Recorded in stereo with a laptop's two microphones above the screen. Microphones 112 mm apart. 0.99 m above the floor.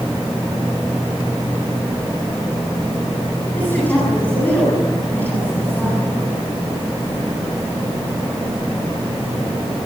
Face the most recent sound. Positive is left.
turn(degrees=15)  # may be behind; listen again after turning